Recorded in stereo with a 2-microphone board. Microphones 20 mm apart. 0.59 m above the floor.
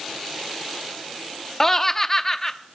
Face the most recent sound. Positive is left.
turn(degrees=15)  # may be behind; listen again after turning